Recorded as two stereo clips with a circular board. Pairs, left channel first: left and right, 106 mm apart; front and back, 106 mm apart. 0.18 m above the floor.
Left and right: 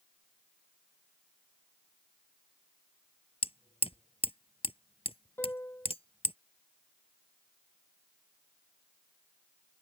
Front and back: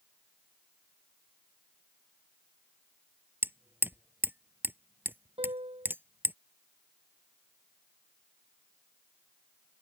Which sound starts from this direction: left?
Hammering, at 3.4 s.